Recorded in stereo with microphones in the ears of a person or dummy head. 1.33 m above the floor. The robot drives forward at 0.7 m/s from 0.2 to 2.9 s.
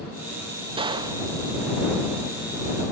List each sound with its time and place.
0.8 s a gunshot: 30° right (ahead or behind), 1.6 m; by 1.3 s 25° right (ahead or behind), 1.9 m